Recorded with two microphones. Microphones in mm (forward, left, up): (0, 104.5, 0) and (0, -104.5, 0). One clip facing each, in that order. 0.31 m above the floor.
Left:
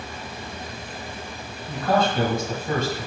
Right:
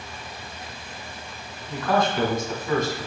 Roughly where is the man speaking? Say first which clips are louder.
Left 1 dB; left.